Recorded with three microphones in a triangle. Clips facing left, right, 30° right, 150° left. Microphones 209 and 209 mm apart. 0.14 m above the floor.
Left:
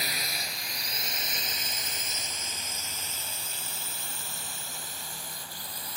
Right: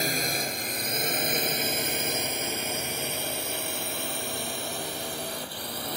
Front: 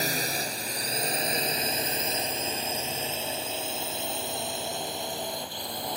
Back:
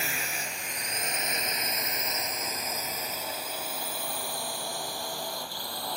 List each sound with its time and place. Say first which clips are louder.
0.0 s a drone: right 10 dB, front 7 dB; 70° right; by 6.0 s 100° right